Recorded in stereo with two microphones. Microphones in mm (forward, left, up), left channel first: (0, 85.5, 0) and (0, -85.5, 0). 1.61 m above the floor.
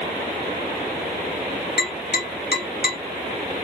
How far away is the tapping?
About 0.8 m.